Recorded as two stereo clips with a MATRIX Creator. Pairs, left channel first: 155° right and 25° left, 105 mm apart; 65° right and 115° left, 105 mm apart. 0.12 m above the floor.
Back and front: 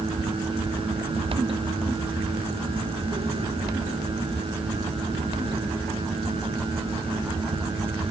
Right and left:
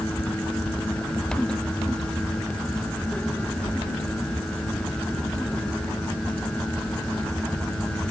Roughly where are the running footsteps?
I don't hear running footsteps.